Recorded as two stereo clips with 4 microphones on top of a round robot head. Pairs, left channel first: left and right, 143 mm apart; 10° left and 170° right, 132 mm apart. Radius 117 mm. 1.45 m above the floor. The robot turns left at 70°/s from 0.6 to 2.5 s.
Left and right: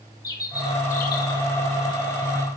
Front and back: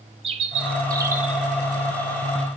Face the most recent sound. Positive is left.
turn(degrees=25)